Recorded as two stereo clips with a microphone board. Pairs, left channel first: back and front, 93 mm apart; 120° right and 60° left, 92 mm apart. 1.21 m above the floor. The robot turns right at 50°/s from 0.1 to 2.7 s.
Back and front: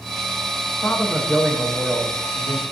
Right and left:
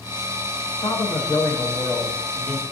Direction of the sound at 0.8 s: 115° right.